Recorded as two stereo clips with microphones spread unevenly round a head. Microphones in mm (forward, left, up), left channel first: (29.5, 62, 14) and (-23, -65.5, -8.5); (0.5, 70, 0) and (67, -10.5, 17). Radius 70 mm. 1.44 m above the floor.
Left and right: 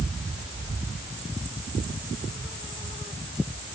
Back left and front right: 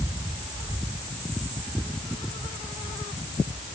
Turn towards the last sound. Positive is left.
No sound to turn to.